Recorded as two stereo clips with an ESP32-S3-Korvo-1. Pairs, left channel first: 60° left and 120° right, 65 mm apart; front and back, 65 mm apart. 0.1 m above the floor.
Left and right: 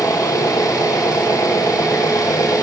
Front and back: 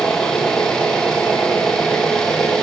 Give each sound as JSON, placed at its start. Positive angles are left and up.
{"t": 0.0, "sound": "an engine running", "azimuth_deg": 80, "distance_m": 4.0}